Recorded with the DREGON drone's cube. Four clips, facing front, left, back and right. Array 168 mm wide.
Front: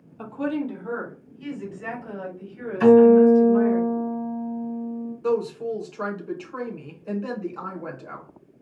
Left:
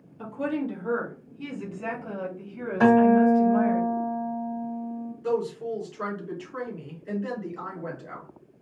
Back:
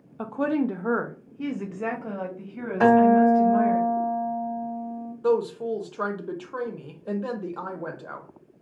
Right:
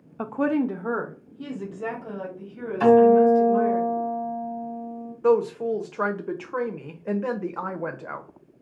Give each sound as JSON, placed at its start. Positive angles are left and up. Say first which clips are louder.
{"t": 0.2, "sound": "a woman speaking", "louder": "right 6 dB, back 2 dB", "azimuth_deg": -110, "distance_m": 0.6}
{"t": 2.8, "sound": "a guitar", "louder": "right 3 dB, front 4 dB", "azimuth_deg": 145, "distance_m": 2.5}
{"t": 5.2, "sound": "a woman speaking", "louder": "right 7 dB, back 1 dB", "azimuth_deg": -110, "distance_m": 0.7}